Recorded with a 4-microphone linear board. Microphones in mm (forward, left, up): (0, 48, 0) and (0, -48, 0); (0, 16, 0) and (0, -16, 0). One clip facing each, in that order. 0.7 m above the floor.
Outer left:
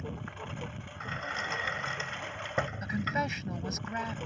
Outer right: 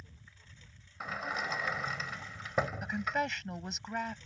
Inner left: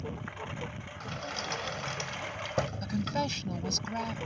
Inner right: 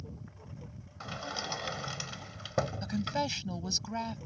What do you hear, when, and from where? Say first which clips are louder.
0.0 s a lawn mower: outer left 19 dB, inner left 10 dB; 90° left; by 4.3 s 75° left (ahead or behind)
1.0 s a sliding door: even, even; 5° right (ahead or behind)
2.8 s a woman speaking: outer left 1 dB, inner left 1 dB; centre (ahead or behind)